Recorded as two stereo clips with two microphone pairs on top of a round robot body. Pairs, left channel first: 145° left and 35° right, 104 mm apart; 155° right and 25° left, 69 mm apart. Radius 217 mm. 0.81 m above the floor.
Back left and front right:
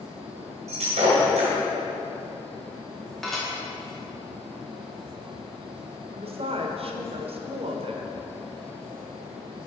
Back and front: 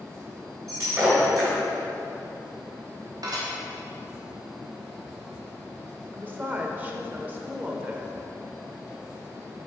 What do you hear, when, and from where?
0.7 s breaking glass: 20° right, 1.8 m
3.2 s dishes clattering: 55° left, 1.4 m
6.1 s a woman speaking: 35° right, 1.1 m